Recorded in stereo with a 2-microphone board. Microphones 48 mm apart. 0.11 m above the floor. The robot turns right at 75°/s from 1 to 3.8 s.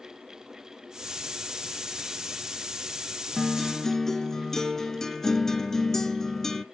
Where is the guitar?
Centre (ahead or behind), 0.5 m; by 6.7 s 10° left (ahead or behind), 0.5 m.